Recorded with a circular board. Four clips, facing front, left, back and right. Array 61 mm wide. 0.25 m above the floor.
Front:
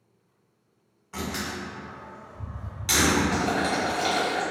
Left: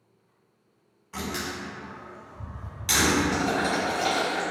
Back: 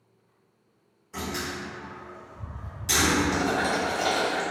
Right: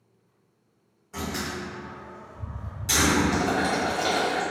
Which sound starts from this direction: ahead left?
A door slam, at 1.1 s.